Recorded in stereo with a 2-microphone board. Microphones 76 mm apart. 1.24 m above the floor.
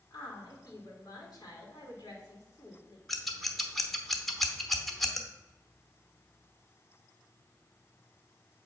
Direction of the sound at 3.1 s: 5° left (ahead or behind).